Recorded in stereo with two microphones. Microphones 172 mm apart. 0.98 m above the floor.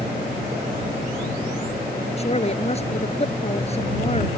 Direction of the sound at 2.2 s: 40° left (ahead or behind).